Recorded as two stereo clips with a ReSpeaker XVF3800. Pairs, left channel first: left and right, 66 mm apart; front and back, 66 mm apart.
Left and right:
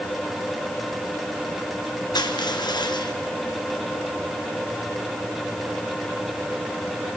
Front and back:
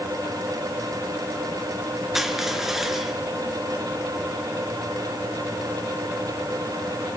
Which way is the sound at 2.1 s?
95° left.